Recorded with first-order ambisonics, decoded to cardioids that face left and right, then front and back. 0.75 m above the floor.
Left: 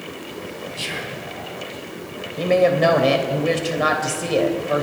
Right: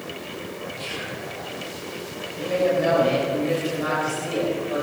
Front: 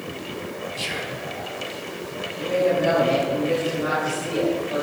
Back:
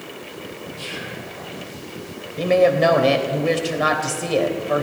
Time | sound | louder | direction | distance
0.8 | whispering | left 5 dB, front 2 dB | 55° left | 6 m
2.4 | a woman speaking | left 5 dB, back 6 dB | 140° left | 3 m